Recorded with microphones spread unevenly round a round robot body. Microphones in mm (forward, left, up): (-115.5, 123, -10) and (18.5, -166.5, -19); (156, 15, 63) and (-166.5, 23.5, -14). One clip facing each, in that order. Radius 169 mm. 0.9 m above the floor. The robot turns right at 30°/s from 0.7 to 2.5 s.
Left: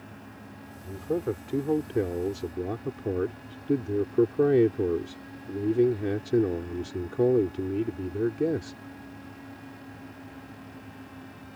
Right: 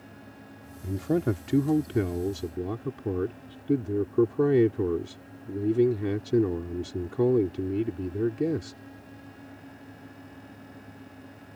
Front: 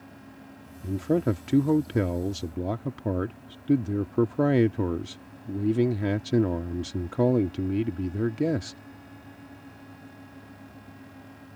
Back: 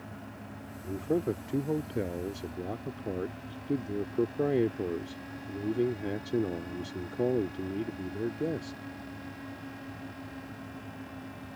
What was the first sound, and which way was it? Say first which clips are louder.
A man speaking: right 3 dB, front 5 dB; 40° right.